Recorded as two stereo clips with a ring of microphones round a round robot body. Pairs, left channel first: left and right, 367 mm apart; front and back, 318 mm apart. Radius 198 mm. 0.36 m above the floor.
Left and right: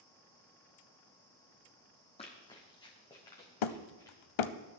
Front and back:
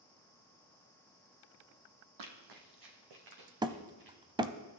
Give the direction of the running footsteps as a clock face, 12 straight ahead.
6 o'clock.